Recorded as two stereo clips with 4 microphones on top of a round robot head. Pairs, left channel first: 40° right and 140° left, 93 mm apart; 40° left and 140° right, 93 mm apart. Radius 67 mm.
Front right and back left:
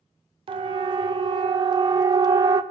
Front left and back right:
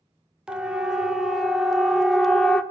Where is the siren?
140° left, 3 m; by 2.6 s 120° left, 1.9 m.